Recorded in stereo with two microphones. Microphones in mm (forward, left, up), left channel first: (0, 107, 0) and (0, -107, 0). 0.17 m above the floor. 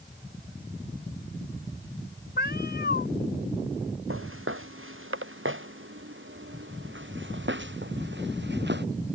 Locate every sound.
2.4 s a cat meowing: 55° left (ahead or behind)
4.1 s footsteps: 75° right (ahead or behind); by 8.9 s 55° right (ahead or behind)